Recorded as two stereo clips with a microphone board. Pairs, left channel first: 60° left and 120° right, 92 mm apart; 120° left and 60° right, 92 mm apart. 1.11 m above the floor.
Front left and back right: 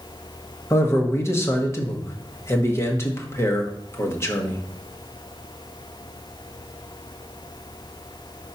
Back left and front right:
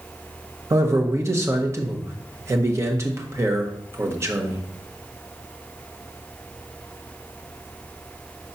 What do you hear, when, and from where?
0.7 s a man speaking: straight ahead, 1.3 m